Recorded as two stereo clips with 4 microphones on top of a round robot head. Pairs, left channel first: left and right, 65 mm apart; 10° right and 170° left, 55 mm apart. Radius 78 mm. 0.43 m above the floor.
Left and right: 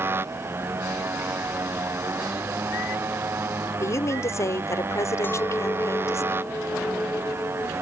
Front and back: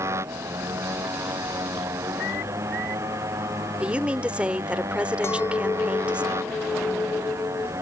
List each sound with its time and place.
0.0 s a motorcycle: 145° right
3.8 s a woman speaking: 105° left
5.2 s a clink: 30° left